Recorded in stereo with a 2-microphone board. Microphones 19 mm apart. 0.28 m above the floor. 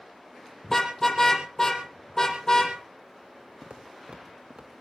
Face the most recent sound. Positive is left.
turn(degrees=-65)  # may be behind; listen again after turning